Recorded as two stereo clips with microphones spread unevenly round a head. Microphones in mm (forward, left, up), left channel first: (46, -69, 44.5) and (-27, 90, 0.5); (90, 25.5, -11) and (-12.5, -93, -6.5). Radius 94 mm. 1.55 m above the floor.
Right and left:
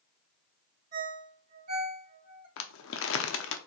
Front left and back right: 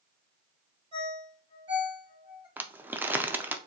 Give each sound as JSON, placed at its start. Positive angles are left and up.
{"t": 0.9, "sound": "a ringtone", "azimuth_deg": 165, "distance_m": 1.5}
{"t": 2.6, "sound": "crumpling", "azimuth_deg": -50, "distance_m": 0.6}